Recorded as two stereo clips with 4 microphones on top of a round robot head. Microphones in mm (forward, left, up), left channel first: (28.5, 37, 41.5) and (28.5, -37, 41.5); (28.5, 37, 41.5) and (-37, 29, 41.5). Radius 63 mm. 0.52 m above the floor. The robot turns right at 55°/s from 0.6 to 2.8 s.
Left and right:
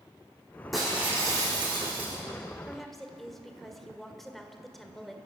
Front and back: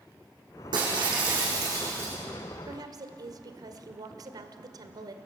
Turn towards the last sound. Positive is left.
turn(degrees=180)